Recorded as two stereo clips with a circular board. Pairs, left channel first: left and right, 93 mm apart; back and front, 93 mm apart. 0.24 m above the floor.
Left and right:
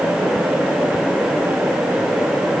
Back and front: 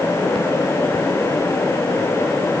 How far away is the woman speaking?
No woman speaking in this recording.